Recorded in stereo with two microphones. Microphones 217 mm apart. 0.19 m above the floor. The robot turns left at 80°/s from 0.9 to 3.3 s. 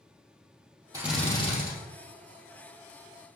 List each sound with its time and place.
0.9 s a drill: 165° right, 3.5 m; by 1.7 s 135° left, 3.5 m